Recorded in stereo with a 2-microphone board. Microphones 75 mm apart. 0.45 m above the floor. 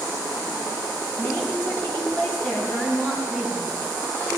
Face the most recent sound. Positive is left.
turn(degrees=15)  # may be behind; listen again after turning